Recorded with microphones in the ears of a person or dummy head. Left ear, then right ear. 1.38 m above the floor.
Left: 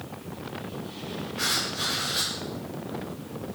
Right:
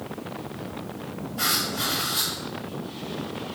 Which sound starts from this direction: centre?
Writing, at 1.4 s.